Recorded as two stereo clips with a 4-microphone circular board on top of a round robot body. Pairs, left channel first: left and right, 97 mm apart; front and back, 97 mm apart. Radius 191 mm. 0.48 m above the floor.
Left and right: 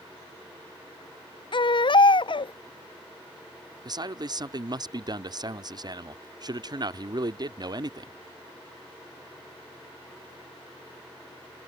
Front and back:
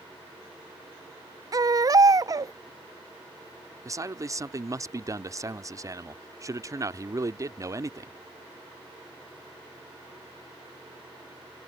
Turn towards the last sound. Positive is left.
turn(degrees=-130)